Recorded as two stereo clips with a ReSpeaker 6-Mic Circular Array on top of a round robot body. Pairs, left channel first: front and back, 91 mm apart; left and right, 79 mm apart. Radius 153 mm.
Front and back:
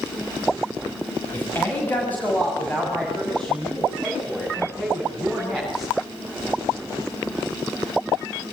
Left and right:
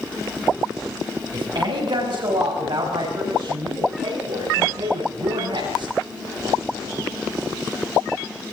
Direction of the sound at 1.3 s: 65° right.